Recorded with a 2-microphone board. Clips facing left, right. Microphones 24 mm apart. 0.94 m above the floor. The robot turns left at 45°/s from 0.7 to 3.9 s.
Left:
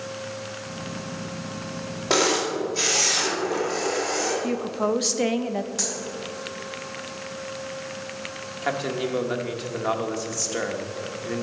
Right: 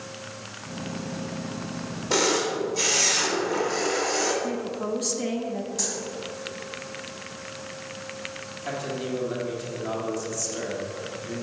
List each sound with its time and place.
2.1 s a camera shutter: 70° left, 2.5 m; by 4.3 s 10° right, 2.5 m
4.4 s a woman speaking: 45° left (ahead or behind), 0.7 m
5.8 s a dropped coin: 35° left (ahead or behind), 2.5 m
8.6 s a man speaking: 60° left (ahead or behind), 1.4 m